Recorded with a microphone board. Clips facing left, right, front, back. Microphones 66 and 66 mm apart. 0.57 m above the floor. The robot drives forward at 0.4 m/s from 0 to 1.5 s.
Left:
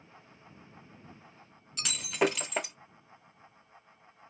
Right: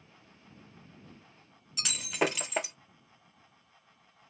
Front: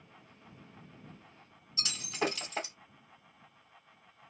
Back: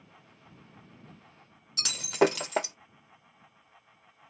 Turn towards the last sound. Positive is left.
turn(degrees=180)